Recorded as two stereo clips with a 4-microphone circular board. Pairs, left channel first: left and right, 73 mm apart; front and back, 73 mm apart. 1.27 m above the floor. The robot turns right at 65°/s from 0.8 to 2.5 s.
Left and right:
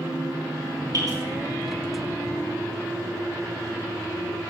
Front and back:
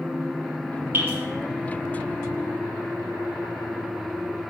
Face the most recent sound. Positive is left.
turn(degrees=-25)